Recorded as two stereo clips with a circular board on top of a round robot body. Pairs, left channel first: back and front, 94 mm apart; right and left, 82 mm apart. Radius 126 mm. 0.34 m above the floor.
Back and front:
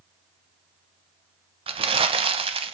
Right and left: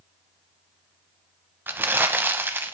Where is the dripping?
I don't hear dripping.